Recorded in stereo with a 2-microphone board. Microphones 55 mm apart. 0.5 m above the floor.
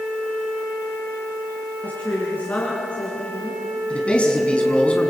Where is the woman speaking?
35° left (ahead or behind), 5.5 m.